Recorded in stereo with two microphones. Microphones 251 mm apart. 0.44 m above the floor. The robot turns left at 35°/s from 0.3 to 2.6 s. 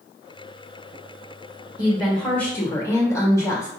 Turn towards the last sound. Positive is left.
turn(degrees=10)  # may be behind; listen again after turning